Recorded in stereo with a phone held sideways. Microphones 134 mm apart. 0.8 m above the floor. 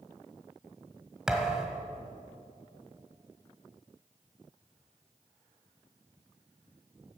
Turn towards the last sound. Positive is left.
turn(degrees=-5)  # may be behind; listen again after turning